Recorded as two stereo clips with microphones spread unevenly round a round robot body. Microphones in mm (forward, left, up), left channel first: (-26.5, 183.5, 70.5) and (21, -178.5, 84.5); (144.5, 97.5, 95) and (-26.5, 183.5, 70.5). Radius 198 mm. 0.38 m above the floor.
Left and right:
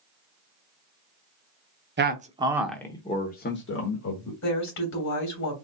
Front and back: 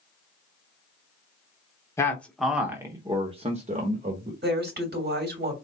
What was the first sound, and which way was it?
A man speaking, 100° right.